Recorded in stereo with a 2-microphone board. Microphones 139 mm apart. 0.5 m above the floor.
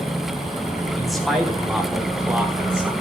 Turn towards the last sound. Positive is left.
turn(degrees=-5)  # may be behind; listen again after turning